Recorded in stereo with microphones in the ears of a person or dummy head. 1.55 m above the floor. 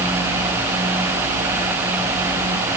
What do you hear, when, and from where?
Only background noise.